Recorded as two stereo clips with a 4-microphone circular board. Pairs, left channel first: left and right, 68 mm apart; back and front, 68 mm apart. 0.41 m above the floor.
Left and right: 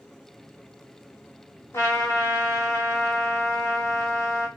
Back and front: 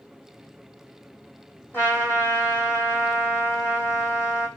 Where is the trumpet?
125° left, 2 m.